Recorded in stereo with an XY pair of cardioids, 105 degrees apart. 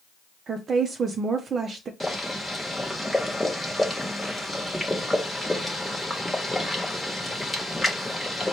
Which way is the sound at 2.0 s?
5° left.